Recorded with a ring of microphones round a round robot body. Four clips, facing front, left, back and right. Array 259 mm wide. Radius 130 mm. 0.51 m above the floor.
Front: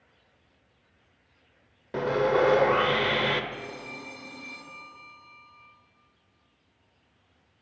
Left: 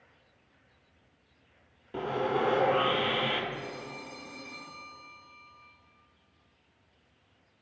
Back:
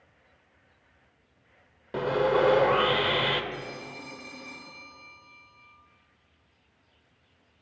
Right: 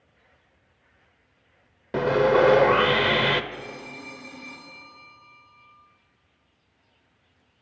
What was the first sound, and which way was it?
Sawing, 85° right.